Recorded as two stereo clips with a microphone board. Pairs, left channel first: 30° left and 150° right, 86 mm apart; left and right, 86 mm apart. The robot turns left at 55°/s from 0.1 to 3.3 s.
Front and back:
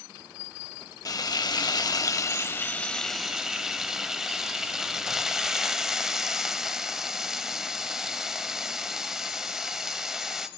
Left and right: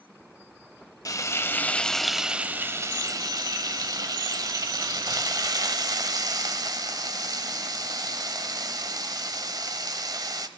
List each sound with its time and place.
1.1 s frying: 55° left, 0.9 m; by 10.5 s 70° right, 0.9 m